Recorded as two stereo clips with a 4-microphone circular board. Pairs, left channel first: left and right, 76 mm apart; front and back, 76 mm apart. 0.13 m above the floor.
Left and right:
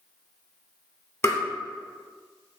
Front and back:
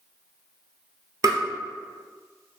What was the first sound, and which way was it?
Tapping, 140° left.